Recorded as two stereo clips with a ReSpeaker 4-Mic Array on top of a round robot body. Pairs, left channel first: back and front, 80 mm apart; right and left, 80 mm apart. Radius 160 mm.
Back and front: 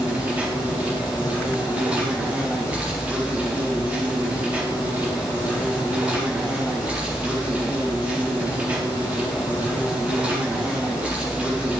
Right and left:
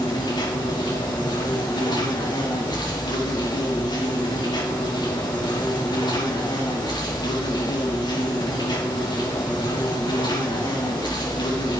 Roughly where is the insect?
Right.